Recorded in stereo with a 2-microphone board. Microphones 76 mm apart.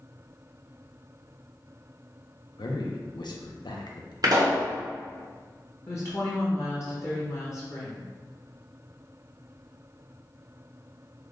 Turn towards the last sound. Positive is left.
turn(degrees=40)  # may be behind; listen again after turning